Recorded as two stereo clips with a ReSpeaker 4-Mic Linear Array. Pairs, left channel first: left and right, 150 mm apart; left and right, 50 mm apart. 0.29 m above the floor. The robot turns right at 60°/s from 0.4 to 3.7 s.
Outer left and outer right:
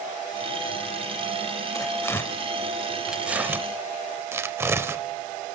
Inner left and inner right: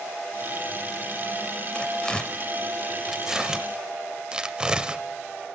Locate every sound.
1.8 s tearing paper: 20° left (ahead or behind), 0.6 m; by 5.0 s 15° right (ahead or behind), 0.6 m